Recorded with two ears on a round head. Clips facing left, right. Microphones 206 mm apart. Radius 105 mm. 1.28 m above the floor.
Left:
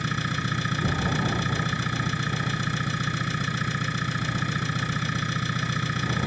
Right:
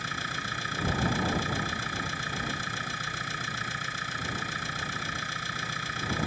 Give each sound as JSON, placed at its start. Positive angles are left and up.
{"t": 0.0, "sound": "an engine running", "side_deg": 70}